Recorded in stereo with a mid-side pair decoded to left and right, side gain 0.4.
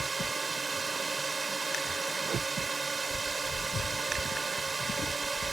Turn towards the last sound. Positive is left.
turn(degrees=-25)